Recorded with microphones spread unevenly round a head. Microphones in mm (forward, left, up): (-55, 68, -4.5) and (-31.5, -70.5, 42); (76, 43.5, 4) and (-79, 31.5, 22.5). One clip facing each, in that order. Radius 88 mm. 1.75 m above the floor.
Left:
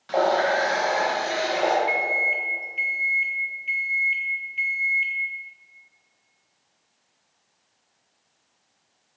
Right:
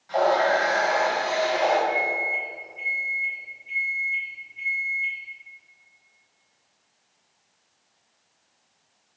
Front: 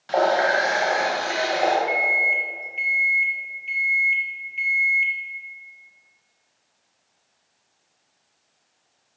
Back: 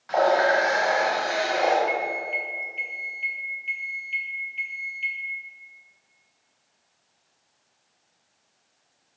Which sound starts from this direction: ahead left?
A running tap, at 0.1 s.